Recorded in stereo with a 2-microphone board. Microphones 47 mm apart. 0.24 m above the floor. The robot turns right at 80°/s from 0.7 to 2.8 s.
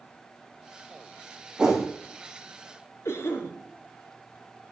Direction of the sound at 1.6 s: 15° right (ahead or behind).